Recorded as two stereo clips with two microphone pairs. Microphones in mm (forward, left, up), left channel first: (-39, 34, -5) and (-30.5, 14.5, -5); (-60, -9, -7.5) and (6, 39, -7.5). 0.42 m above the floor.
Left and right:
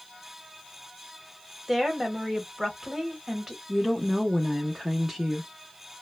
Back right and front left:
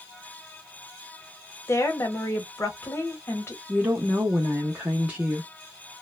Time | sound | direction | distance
1.7 | a woman speaking | 130° right | 1.1 m
3.7 | a woman speaking | 10° right | 0.9 m